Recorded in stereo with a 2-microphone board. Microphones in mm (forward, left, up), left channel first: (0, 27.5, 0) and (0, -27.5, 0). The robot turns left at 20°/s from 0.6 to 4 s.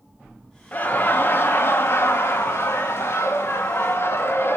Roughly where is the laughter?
Behind left.